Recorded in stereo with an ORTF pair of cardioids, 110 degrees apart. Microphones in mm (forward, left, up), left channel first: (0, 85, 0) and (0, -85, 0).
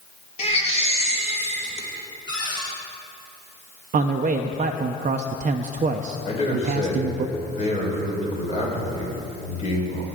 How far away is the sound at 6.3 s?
About 4.5 m.